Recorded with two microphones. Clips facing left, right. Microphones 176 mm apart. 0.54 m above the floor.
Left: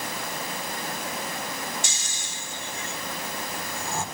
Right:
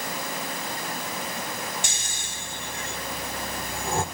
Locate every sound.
1.8 s snoring: 50° right (ahead or behind), 1.5 m